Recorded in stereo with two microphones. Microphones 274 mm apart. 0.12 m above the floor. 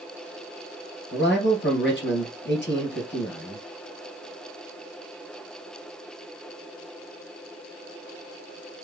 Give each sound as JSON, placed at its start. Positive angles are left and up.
{"t": 1.1, "sound": "a man speaking", "side_deg": 40, "distance_m": 2.0}